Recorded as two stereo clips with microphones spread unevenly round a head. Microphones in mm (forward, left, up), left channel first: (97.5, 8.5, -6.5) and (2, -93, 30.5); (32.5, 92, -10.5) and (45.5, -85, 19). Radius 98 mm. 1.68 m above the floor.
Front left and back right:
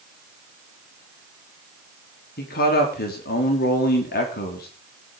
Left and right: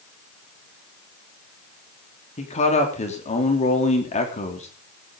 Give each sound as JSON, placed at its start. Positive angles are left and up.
{"t": 2.4, "sound": "a man speaking", "azimuth_deg": 40, "distance_m": 3.5}